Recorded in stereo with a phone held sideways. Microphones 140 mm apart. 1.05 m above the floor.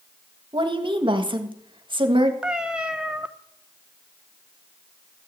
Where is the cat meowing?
5° right (ahead or behind), 0.8 m.